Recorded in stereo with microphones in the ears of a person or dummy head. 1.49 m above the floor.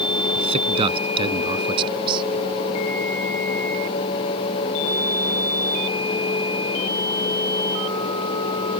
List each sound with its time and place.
0.3 s a man speaking: 30° right (ahead or behind); by 2.2 s 25° right (ahead or behind)